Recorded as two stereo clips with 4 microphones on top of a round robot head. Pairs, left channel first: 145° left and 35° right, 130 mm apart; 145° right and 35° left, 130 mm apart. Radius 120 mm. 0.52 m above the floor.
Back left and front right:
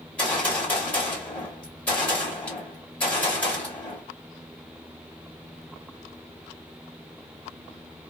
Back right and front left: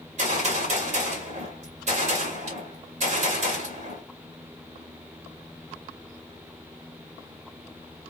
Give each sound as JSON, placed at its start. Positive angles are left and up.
{"t": 0.2, "sound": "a gunshot", "azimuth_deg": 65, "distance_m": 1.9}